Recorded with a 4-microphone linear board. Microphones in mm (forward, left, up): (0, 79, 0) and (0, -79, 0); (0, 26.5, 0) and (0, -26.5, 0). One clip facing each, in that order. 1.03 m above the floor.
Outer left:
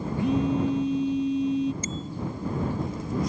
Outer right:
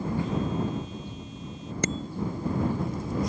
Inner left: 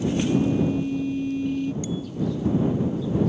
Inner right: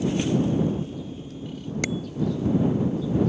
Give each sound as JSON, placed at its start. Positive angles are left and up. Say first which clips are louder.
{"t": 0.2, "sound": "a phone buzzing", "louder": "outer left 10 dB, inner left 3 dB", "side_deg": 75}
{"t": 1.8, "sound": "a bicycle bell", "louder": "outer right 3 dB, inner right 1 dB", "side_deg": -75}